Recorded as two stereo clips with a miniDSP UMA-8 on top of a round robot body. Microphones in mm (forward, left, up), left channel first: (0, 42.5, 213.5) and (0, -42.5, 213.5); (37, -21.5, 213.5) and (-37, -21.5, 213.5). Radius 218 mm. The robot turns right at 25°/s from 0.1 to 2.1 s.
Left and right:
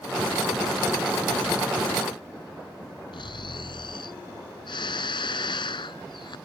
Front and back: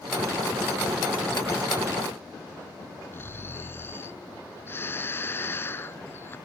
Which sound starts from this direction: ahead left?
Snoring, at 3.1 s.